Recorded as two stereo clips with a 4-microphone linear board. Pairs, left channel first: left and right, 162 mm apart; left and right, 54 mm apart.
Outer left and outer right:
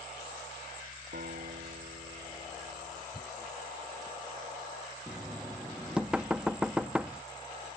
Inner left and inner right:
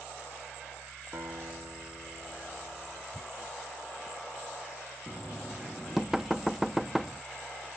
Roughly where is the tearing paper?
Centre.